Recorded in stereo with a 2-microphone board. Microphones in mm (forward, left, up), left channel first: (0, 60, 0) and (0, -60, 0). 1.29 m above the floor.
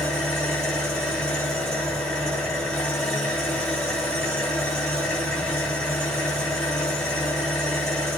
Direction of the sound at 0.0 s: 5° left (ahead or behind).